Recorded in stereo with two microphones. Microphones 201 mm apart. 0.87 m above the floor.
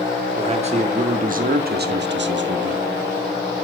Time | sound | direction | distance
0.4 | a man speaking | 30° right (ahead or behind) | 2 m